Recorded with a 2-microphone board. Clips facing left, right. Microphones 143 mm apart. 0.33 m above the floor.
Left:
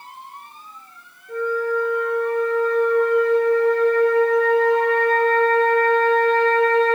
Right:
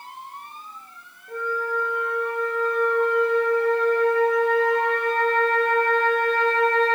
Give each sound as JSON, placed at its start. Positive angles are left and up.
{"t": 1.3, "sound": "a flute", "side_deg": -55, "distance_m": 0.6}